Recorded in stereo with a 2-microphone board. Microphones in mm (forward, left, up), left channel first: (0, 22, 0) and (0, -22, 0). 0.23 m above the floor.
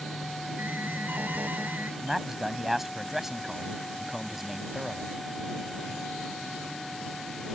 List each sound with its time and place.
0.6 s an alarm: 40° right (ahead or behind)
2.0 s a man speaking: 10° right (ahead or behind)